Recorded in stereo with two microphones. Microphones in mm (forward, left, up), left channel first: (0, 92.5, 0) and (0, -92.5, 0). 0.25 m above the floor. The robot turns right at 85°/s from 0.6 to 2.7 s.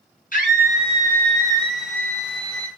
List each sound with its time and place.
0.3 s a scream: 120° left, 3 m; by 2.7 s 60° right, 3 m